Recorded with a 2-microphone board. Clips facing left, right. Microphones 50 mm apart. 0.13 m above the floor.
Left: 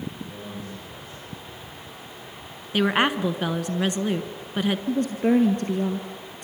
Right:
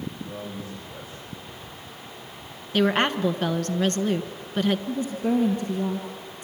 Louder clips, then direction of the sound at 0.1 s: Right 1 dB; 20° right (ahead or behind).